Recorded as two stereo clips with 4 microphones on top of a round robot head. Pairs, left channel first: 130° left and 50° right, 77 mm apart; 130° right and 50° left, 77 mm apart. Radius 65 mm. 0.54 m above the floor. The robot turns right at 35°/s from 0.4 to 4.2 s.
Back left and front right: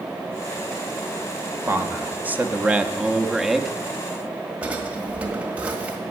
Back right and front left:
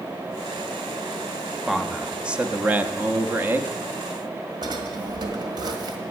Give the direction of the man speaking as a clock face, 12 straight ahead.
1 o'clock.